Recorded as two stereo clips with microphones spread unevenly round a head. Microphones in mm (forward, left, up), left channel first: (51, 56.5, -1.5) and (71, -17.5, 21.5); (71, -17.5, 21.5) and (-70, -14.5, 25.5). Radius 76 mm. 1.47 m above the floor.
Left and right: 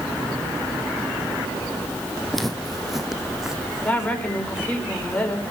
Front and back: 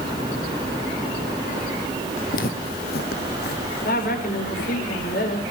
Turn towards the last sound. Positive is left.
turn(degrees=35)